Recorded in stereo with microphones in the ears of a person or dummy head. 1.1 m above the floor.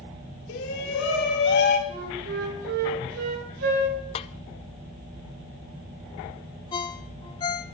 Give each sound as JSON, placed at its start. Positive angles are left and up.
{"t": 0.5, "sound": "a shout", "side_deg": 70, "distance_m": 2.5}
{"t": 1.9, "sound": "a flute", "side_deg": -65, "distance_m": 9.0}
{"t": 4.2, "sound": "a snare drum", "side_deg": 35, "distance_m": 0.6}
{"t": 6.7, "sound": "a ringtone", "side_deg": 25, "distance_m": 0.9}